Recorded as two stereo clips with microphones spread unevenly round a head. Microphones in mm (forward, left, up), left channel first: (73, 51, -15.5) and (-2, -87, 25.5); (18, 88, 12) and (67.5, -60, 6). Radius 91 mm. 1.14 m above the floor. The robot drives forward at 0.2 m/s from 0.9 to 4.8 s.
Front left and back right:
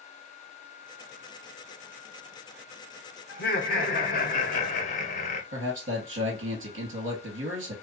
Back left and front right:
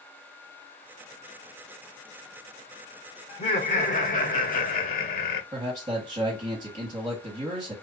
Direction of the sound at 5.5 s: 135° right.